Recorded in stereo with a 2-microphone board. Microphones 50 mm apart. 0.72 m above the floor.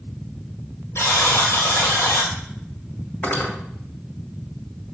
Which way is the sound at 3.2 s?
35° left (ahead or behind).